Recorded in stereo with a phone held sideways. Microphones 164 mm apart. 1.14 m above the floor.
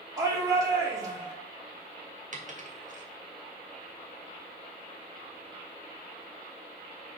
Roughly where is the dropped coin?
Right.